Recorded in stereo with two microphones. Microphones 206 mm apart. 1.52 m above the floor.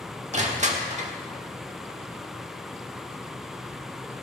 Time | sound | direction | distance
0.3 | crushing | 35° right (ahead or behind) | 1.3 m